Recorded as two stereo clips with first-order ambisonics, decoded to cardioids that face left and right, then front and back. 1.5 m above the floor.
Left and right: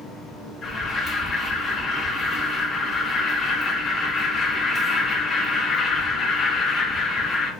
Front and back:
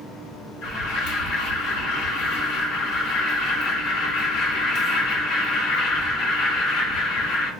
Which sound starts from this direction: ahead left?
An alarm, at 0.6 s.